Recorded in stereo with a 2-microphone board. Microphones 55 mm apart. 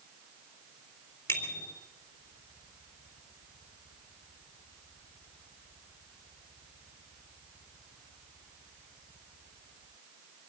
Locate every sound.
1.3 s a bicycle bell: 45° left (ahead or behind), 4 m